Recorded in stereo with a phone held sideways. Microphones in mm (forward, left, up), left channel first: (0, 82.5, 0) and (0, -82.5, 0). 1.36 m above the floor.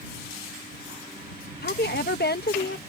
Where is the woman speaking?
70° left (ahead or behind).